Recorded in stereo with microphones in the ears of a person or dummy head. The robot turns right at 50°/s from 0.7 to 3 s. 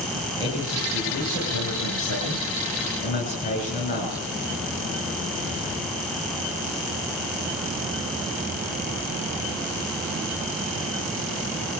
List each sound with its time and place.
0.4 s a man speaking: 30° left, 9.5 m; by 4.2 s 145° left, 9.5 m